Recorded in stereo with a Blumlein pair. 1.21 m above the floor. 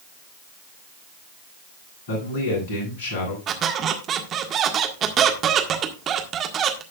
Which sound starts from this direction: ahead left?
A man speaking, at 2.1 s.